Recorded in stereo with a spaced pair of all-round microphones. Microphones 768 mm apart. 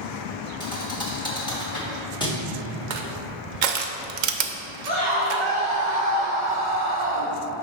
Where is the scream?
30° right (ahead or behind), 1.9 m.